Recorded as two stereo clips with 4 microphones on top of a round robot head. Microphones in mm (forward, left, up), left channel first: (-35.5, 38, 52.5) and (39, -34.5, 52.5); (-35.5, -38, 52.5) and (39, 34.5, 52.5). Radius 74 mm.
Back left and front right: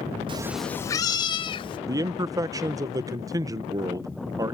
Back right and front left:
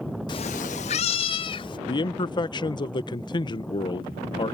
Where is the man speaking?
95° right.